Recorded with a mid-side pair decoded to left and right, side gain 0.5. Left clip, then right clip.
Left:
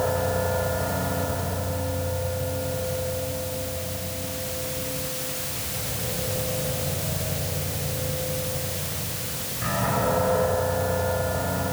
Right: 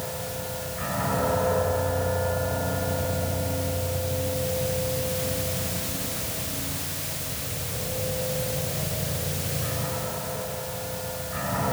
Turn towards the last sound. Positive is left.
No sound to turn to.